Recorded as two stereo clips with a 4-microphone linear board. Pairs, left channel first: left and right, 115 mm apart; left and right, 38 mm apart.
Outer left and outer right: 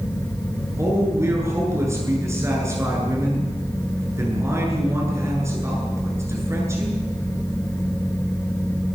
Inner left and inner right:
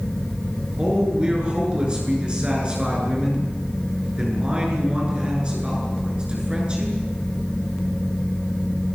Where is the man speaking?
25° right (ahead or behind), 9.5 m.